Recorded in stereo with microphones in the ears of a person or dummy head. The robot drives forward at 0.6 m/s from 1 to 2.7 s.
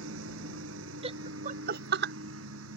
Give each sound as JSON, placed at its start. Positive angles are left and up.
{"t": 0.0, "sound": "a lawn mower", "side_deg": -75}
{"t": 1.0, "sound": "laughter", "side_deg": -35}